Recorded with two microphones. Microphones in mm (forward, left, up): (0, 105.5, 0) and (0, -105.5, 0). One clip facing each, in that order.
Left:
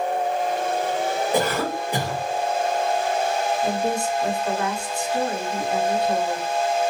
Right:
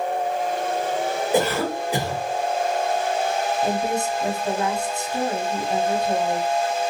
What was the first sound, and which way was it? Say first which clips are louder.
A cough: right 4 dB; 5° right (ahead or behind).